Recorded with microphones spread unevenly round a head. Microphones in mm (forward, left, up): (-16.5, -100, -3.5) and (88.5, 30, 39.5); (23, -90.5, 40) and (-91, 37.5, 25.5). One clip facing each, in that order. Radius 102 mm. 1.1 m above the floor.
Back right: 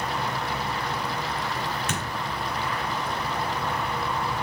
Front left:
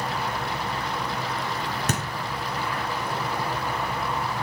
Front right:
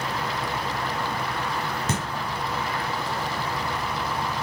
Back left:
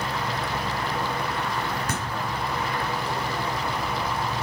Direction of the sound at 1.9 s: 20° left.